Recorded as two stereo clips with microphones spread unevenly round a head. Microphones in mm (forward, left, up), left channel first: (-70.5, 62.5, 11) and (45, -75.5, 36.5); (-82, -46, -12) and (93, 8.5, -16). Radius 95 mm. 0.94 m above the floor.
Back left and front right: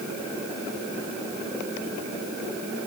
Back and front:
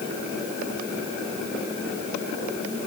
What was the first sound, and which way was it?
Only background noise.